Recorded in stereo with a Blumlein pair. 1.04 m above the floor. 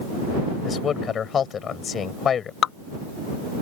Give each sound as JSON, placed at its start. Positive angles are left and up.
{"t": 0.7, "sound": "a man speaking", "azimuth_deg": 25}
{"t": 2.6, "sound": "dripping", "azimuth_deg": 30}